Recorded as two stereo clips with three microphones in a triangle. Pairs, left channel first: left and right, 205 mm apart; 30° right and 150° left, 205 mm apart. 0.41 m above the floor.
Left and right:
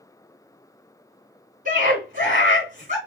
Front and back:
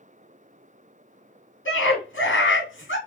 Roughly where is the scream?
Ahead right.